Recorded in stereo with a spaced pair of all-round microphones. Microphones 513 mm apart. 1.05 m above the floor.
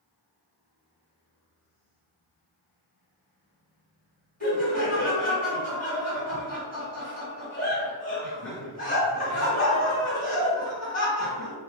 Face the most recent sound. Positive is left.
turn(degrees=15)  # may be behind; listen again after turning